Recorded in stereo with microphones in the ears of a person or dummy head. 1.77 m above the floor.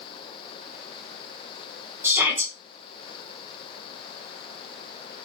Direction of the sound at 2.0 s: 10° right (ahead or behind).